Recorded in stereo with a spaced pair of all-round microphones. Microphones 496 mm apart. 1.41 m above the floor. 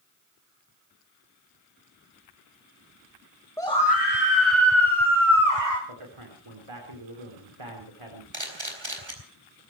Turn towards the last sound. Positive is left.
turn(degrees=-60)  # may be behind; listen again after turning